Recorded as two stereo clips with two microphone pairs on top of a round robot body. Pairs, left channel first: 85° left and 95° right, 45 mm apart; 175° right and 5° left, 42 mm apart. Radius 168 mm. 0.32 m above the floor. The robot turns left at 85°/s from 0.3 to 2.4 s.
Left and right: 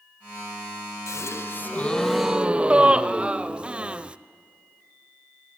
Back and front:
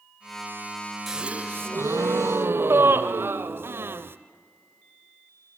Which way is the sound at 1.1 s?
85° left.